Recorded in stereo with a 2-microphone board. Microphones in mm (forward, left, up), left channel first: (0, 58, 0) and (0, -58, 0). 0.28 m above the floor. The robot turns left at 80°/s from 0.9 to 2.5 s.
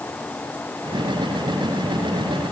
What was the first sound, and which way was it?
Only background noise.